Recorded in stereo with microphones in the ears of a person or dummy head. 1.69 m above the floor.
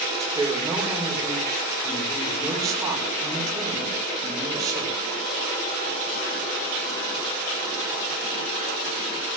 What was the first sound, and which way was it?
A woman speaking, 20° right (ahead or behind).